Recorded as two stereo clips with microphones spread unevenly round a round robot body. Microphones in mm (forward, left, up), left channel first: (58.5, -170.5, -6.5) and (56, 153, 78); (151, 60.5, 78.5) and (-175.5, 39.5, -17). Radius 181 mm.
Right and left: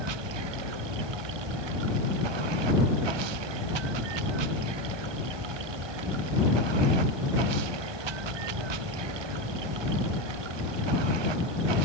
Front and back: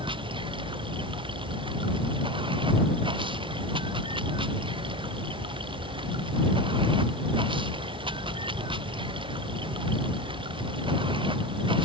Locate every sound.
0.0 s running water: 110° left